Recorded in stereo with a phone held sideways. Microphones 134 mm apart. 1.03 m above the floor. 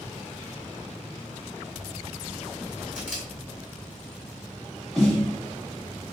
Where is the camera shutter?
Centre (ahead or behind), 1.6 m.